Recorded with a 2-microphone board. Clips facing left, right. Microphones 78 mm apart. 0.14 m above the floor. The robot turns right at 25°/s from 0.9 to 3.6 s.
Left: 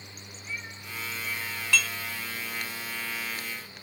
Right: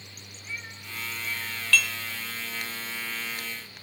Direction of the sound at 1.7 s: 20° left (ahead or behind).